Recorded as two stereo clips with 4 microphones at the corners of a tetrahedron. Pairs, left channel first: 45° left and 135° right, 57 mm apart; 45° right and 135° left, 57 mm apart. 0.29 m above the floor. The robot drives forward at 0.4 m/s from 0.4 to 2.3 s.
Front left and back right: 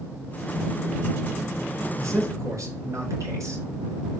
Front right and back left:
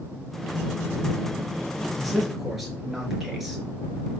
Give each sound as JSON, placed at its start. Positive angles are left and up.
{"t": 2.0, "sound": "a man speaking", "azimuth_deg": -140, "distance_m": 3.5}